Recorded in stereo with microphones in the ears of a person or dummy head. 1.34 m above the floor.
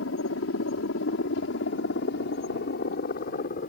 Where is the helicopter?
70° left (ahead or behind); by 3.7 s 50° left (ahead or behind).